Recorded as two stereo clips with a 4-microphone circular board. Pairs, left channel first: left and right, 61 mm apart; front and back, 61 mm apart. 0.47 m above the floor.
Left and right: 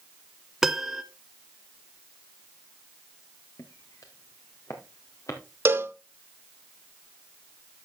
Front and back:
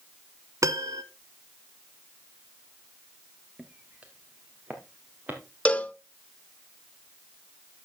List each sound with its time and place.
0.6 s a piano: 175° right, 0.6 m
3.6 s footsteps: 110° left, 1.8 m; by 5.4 s 125° left, 3 m
5.7 s a cowbell: 55° right, 0.6 m